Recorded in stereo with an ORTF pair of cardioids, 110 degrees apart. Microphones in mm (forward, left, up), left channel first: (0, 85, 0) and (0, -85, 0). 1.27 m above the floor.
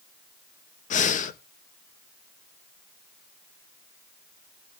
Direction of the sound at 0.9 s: 50° left.